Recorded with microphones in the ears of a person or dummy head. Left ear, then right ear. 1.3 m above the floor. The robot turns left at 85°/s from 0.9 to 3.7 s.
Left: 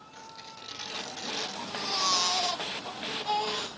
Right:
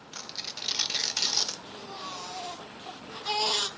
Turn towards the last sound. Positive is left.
turn(degrees=-55)